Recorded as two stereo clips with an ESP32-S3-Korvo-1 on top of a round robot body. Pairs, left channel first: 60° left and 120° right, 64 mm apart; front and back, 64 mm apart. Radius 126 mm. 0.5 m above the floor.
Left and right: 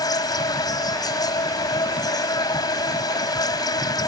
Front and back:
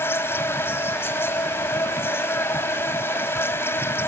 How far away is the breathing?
No breathing in this recording.